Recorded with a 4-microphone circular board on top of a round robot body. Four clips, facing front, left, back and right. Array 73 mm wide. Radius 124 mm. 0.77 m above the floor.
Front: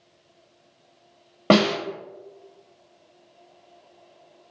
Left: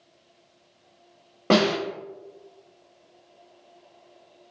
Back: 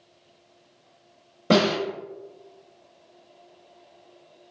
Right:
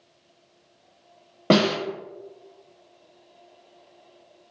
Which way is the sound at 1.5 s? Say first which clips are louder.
Right 1 dB, front 2 dB; 10° right.